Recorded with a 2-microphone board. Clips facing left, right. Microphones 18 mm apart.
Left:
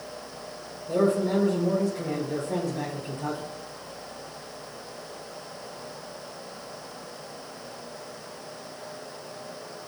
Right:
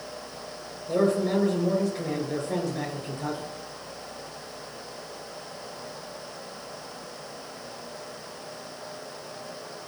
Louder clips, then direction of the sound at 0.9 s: Even; 35° right (ahead or behind).